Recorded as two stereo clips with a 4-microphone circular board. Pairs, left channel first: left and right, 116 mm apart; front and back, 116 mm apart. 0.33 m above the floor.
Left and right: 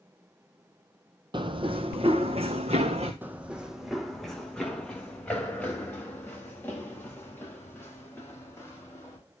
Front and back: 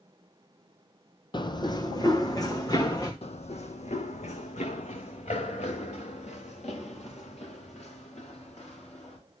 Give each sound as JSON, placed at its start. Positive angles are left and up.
{"t": 1.3, "sound": "running footsteps", "azimuth_deg": -45, "distance_m": 0.8}
{"t": 3.2, "sound": "running footsteps", "azimuth_deg": -20, "distance_m": 0.7}